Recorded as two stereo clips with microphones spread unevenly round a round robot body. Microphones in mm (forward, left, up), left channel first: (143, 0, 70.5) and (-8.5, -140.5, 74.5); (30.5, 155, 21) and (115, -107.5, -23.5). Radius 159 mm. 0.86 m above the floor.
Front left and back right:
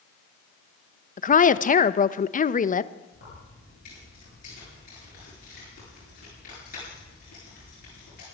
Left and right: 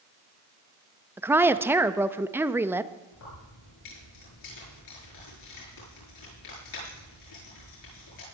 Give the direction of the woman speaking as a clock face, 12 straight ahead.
12 o'clock.